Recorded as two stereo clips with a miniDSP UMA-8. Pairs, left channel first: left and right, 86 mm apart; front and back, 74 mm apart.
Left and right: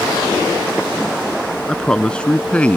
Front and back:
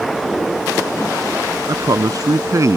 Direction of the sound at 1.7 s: 170° left.